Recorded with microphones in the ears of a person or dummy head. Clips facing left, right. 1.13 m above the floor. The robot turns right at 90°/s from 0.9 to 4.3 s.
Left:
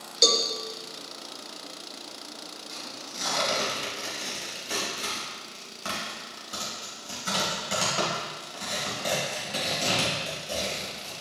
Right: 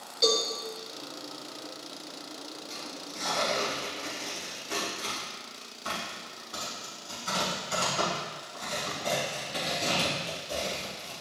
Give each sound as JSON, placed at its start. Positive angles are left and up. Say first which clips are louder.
{"t": 0.2, "sound": "a cowbell", "louder": "even", "side_deg": 55, "distance_m": 1.1}
{"t": 2.7, "sound": "tearing paper", "louder": "right 1 dB", "side_deg": -35, "distance_m": 3.5}